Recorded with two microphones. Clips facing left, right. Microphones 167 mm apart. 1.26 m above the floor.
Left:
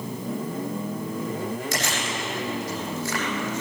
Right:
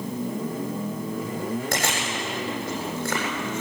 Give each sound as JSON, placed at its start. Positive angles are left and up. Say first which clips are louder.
{"t": 1.7, "sound": "chewing", "louder": "right 1 dB", "side_deg": -65, "distance_m": 9.0}